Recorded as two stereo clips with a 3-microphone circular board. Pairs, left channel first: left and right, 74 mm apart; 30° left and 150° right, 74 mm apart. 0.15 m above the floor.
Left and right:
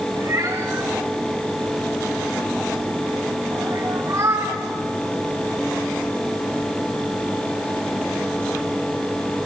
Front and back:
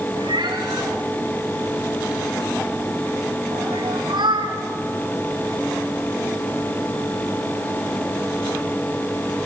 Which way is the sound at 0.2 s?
140° right.